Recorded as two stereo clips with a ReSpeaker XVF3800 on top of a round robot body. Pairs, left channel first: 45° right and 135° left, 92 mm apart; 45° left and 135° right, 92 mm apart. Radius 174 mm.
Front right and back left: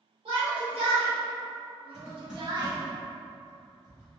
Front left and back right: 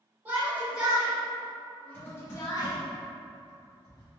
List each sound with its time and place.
0.2 s a shout: 155° left, 1.7 m; by 2.8 s 85° left, 0.9 m
1.9 s typing on a keyboard: 55° left, 1.8 m